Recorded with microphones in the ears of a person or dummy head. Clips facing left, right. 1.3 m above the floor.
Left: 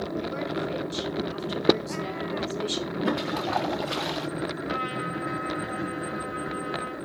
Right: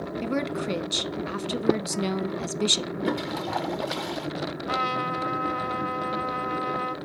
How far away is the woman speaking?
About 1.1 m.